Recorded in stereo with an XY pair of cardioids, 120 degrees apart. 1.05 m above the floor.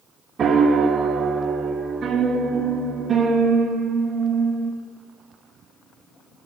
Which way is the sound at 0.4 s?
40° right.